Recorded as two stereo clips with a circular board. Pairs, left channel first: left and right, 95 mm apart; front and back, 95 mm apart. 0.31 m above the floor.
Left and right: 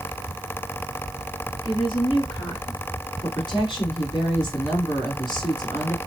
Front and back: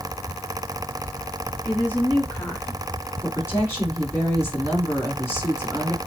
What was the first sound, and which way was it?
A woman speaking, 65° left.